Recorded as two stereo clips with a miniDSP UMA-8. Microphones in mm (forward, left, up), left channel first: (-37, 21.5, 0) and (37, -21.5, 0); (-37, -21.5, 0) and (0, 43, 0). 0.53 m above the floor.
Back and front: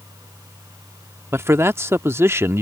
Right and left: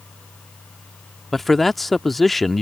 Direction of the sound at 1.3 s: 35° right.